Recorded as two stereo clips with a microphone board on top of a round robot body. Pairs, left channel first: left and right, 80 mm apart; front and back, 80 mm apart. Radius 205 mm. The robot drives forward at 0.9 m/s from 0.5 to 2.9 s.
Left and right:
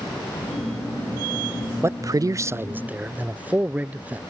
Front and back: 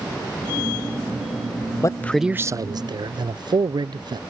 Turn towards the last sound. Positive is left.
turn(degrees=-160)